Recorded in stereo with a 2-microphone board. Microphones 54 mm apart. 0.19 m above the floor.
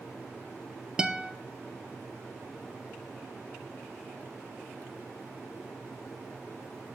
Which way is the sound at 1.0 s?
15° right (ahead or behind).